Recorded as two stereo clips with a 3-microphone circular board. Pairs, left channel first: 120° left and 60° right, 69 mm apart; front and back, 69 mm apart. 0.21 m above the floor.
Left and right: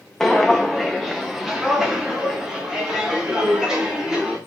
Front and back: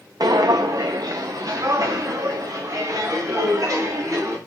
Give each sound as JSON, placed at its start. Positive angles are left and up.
{"t": 0.2, "sound": "footsteps", "azimuth_deg": -155, "distance_m": 0.7}